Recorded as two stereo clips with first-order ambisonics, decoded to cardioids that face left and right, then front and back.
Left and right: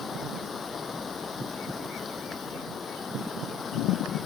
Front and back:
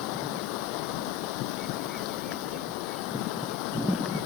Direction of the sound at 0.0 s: 15° left.